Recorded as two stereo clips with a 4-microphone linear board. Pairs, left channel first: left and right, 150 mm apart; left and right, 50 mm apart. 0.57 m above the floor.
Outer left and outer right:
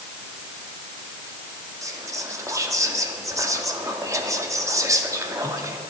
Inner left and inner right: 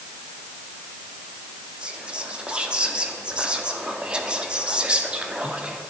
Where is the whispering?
20° right (ahead or behind), 0.7 m.